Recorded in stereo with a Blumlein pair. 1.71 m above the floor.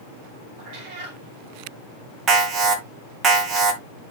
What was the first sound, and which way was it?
A cat meowing, 35° right.